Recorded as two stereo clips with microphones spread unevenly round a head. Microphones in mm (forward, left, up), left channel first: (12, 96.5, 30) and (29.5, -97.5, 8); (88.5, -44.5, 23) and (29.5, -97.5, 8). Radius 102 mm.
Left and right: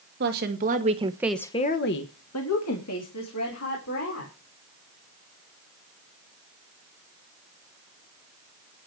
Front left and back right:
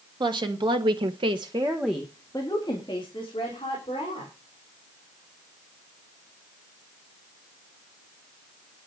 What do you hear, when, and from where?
0.2 s a woman speaking: 125° right, 2 m; by 4.3 s 90° left, 4.5 m